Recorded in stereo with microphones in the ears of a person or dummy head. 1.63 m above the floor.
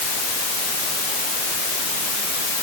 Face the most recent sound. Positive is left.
No sound to turn to.